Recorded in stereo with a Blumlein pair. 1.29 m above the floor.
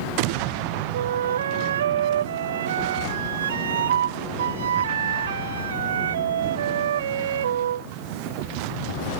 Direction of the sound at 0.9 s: 65° right.